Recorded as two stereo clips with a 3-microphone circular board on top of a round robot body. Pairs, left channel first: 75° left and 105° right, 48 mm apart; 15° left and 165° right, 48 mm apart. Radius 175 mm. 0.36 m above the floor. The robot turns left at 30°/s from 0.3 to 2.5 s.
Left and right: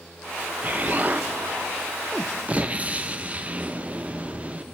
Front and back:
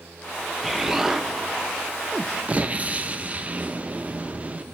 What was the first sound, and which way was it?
An explosion, 80° right.